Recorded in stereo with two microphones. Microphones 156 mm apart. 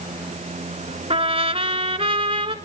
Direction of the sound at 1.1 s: 40° right (ahead or behind).